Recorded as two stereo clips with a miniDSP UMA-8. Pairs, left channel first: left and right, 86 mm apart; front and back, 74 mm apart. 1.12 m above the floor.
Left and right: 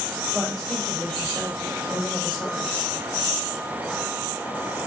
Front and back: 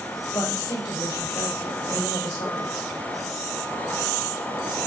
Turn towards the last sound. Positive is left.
turn(degrees=5)